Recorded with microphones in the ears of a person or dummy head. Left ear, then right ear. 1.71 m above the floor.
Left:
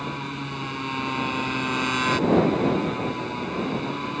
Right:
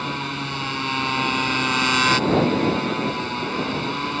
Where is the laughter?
I don't hear laughter.